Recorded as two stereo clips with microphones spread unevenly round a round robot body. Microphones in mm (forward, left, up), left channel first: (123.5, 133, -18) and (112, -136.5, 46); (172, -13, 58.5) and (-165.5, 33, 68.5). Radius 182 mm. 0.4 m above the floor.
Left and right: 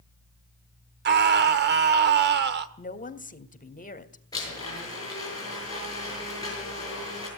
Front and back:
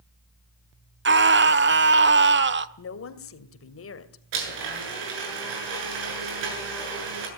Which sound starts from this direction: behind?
A blender, at 4.3 s.